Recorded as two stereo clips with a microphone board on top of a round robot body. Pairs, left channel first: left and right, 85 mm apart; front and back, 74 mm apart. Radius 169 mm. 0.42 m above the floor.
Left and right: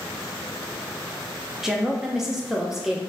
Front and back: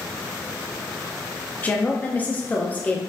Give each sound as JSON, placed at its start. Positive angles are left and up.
{"t": 1.6, "sound": "a woman speaking", "azimuth_deg": -10, "distance_m": 0.9}